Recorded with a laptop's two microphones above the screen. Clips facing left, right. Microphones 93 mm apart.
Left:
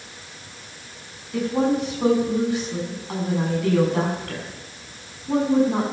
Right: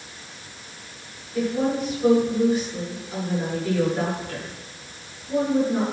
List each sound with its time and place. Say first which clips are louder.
1.3 s a woman speaking: left 2 dB; 90° left, 7 m